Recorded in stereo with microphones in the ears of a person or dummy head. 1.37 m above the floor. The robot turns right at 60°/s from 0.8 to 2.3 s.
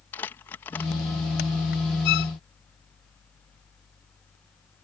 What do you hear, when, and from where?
0.1 s crumpling: 20° left (ahead or behind); by 1.8 s 75° left (ahead or behind)
2.0 s a violin: 60° left (ahead or behind)